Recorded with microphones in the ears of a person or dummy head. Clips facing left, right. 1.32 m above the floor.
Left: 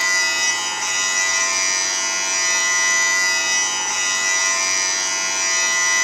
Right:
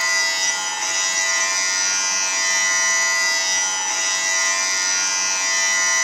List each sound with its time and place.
0.0 s a machine running: 85° left, 0.9 m